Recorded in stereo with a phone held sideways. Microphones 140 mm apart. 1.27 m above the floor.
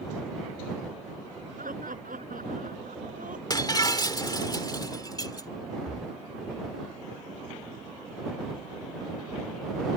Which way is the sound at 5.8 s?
65° right (ahead or behind).